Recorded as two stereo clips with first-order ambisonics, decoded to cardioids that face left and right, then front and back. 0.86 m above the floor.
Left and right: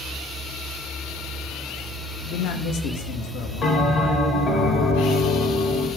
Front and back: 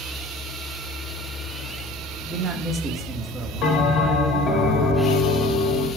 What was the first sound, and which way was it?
A man speaking, 110° left.